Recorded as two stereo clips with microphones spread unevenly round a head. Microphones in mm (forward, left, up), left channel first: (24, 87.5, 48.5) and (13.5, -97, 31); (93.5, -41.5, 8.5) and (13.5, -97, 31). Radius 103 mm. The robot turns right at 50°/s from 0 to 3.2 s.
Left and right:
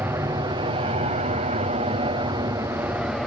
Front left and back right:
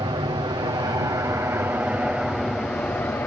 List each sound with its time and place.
0.0 s an aircraft: 165° right; by 3.3 s 10° right